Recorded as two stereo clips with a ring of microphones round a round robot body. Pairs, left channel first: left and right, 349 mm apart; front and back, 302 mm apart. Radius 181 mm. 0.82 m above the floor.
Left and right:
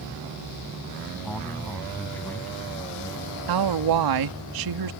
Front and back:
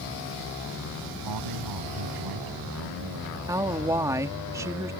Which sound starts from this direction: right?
A woman speaking, at 3.5 s.